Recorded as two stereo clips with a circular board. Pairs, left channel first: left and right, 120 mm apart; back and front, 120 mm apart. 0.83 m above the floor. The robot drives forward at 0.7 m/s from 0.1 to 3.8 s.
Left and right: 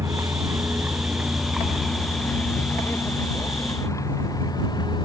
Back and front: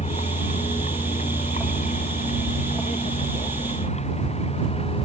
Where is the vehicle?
155° right; by 5.0 s 145° left.